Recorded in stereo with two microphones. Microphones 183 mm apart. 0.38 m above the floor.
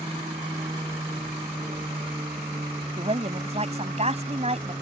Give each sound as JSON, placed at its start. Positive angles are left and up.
{"t": 0.0, "sound": "an aircraft", "side_deg": -30}
{"t": 3.0, "sound": "a woman speaking", "side_deg": -40}